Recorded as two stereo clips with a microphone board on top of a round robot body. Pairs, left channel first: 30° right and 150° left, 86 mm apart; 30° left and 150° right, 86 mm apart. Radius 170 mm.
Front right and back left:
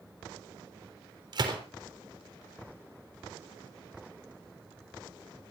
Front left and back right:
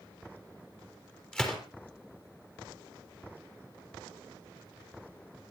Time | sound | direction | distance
1.3 | a gunshot | 110° left | 3.5 m